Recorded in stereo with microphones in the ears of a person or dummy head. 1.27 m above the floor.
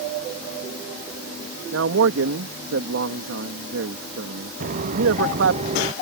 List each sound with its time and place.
1.7 s a man speaking: 75° right (ahead or behind)
4.6 s footsteps: 50° right (ahead or behind); by 5.9 s 35° right (ahead or behind)